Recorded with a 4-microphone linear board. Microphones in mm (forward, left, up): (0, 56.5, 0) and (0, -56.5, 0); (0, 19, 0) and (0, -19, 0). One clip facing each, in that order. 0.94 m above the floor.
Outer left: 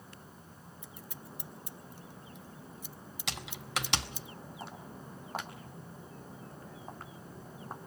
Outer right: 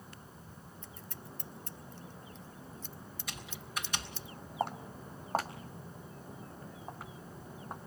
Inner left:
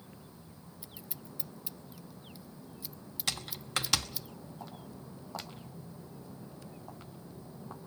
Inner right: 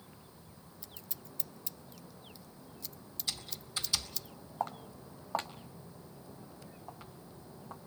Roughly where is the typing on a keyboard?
Left.